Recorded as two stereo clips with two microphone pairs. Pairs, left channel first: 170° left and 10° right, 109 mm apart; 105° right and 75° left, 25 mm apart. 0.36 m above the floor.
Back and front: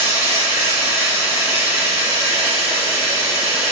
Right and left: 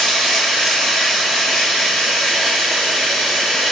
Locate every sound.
0.0 s running water: 75° right, 1.3 m